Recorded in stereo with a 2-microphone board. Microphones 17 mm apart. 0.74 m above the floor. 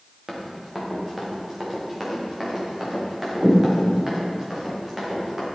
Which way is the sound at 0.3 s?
10° right (ahead or behind).